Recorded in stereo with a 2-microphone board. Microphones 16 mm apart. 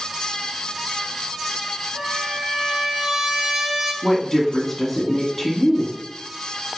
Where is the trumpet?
45° right (ahead or behind), 3.5 m.